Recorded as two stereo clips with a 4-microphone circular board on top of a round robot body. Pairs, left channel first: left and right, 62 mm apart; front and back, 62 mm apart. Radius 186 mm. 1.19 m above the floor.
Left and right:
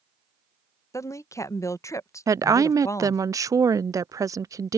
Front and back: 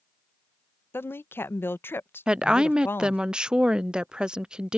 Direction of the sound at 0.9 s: 55° left.